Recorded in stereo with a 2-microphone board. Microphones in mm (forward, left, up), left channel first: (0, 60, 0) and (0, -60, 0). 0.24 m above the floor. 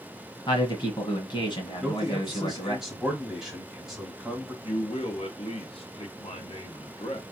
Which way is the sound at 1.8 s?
5° right (ahead or behind).